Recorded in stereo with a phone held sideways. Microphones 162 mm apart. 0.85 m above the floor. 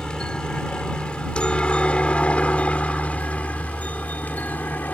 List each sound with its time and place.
0.0 s a helicopter: 5° left (ahead or behind); by 5.0 s 10° left (ahead or behind)